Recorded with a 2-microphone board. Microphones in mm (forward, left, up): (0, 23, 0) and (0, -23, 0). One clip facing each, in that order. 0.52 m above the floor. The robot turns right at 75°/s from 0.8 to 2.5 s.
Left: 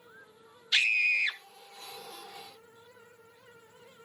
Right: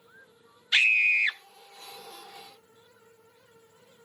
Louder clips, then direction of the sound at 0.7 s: Right 4 dB; 90° right.